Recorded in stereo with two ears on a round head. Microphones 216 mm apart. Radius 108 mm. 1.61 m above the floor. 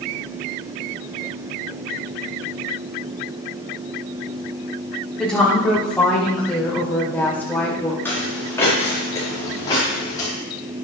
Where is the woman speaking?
5° left (ahead or behind), 5.5 m; by 8.0 s 10° left (ahead or behind), 4 m.